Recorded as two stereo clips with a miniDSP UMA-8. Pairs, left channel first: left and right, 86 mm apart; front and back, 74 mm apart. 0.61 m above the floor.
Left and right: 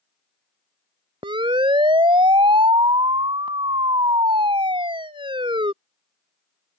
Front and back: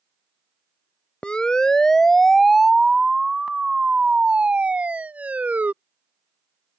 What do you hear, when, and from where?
1.2 s a siren: 75° right; by 5.7 s 110° right